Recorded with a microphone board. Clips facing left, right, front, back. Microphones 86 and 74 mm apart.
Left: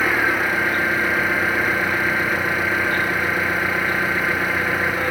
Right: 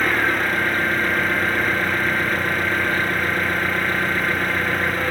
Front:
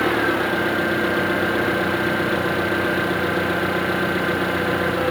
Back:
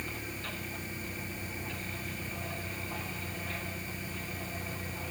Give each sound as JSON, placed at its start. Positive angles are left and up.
{"t": 0.0, "sound": "an engine running", "azimuth_deg": 5}